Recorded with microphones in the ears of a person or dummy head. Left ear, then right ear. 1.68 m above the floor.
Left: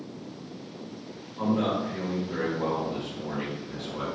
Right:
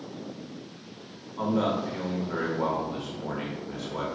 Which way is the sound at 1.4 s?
55° right (ahead or behind).